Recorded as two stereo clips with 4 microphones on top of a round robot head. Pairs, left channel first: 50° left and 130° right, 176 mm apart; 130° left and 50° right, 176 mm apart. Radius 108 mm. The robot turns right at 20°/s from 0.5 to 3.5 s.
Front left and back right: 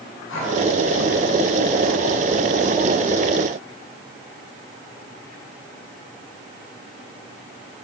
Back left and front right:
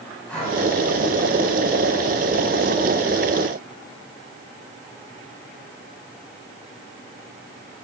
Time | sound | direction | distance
0.3 | breathing | 45° left | 9.5 m